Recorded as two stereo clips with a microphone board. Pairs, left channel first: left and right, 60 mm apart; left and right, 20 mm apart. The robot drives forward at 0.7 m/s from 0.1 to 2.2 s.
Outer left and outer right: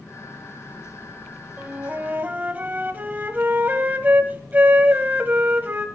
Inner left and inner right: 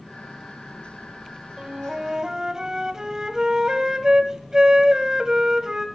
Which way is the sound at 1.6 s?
25° right (ahead or behind).